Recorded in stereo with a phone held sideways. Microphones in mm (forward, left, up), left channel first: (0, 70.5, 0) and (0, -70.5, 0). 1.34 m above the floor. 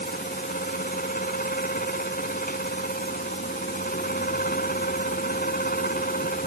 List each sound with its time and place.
0.0 s a fan: 85° left